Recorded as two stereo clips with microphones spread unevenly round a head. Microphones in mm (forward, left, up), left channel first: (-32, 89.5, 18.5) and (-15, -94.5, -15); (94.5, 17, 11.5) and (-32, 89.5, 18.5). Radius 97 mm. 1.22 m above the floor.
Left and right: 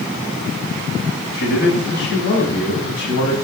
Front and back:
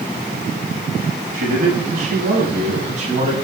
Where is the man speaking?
130° left, 9 m; by 3.3 s 115° left, 8 m.